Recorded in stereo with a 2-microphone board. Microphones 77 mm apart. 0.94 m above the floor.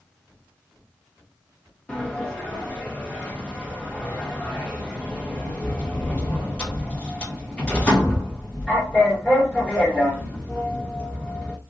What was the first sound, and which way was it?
A sliding door, 15° left (ahead or behind).